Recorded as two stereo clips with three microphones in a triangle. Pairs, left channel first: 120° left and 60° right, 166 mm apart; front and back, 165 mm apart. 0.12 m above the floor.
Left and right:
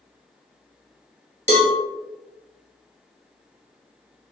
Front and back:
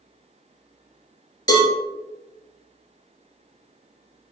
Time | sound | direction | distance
1.5 | a cowbell | 55° right | 1.1 m